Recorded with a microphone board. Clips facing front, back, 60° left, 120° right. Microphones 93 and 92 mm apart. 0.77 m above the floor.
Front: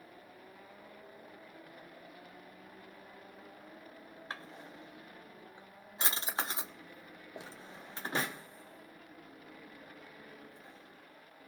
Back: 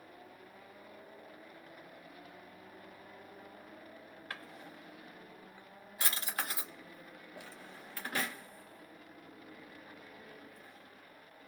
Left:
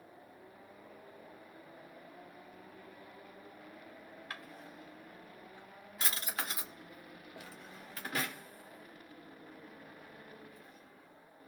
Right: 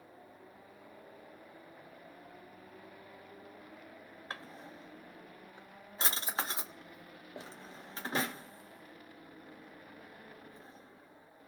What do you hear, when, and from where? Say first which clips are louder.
4.3 s a drawer: front 2 dB, right 4 dB; 60° right, 0.6 m